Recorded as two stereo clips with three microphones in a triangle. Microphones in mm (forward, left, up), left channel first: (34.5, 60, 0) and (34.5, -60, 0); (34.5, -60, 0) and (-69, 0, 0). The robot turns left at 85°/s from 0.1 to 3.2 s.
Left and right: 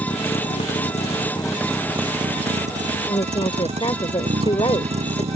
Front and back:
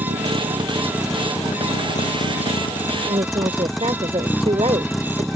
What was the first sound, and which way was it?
A vehicle, 145° left.